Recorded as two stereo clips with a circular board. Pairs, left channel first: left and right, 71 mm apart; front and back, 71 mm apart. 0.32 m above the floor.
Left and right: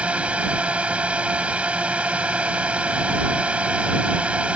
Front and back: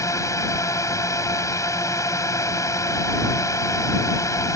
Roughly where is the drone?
Ahead.